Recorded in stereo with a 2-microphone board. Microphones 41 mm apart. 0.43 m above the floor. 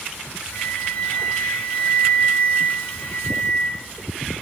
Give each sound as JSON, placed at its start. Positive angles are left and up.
{"t": 0.5, "sound": "a flute", "side_deg": 35, "distance_m": 0.9}